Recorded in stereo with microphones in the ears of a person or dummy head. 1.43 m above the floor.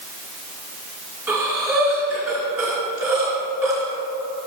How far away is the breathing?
About 1.8 m.